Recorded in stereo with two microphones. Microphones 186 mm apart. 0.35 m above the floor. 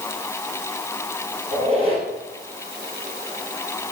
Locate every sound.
1.5 s a squeak: 35° right (ahead or behind), 2.5 m